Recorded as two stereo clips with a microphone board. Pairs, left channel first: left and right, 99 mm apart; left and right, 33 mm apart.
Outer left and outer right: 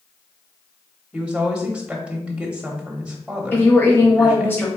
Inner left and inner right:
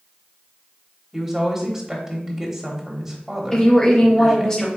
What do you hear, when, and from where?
1.1 s a woman speaking: 10° right (ahead or behind), 1.0 m
3.5 s a woman speaking: 20° left (ahead or behind), 1.1 m